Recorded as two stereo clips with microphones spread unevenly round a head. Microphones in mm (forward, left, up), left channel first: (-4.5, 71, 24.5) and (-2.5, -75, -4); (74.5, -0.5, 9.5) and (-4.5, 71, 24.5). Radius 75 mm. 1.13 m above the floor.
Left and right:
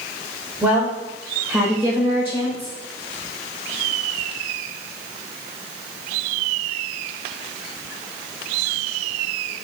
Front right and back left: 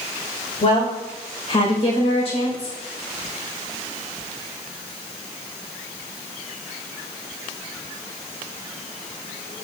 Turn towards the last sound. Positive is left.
turn(degrees=-15)